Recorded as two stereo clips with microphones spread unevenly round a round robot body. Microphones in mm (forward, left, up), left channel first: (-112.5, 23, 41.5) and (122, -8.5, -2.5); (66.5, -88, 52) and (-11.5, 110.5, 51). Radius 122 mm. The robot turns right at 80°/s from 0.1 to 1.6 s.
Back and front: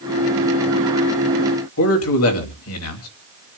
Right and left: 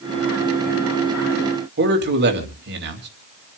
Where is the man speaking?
145° left, 3 m.